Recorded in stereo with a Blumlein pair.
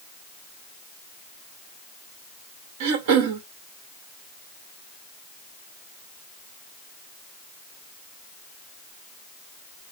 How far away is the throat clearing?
About 1.0 m.